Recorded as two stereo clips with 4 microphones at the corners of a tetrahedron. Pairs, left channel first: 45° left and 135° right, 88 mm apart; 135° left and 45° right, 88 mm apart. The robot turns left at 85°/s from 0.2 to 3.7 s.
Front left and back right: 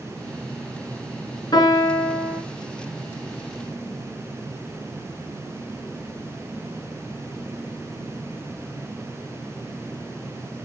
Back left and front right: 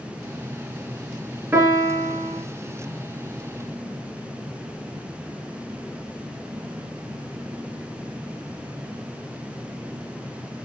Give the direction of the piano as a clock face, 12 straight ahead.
11 o'clock.